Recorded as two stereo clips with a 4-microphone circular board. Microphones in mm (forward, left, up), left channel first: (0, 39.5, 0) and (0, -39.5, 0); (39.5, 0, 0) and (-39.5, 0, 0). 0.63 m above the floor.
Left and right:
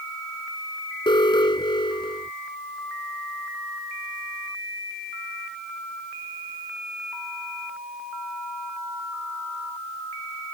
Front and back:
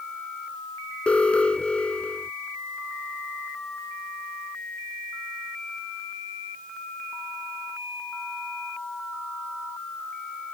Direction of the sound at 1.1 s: 75° left.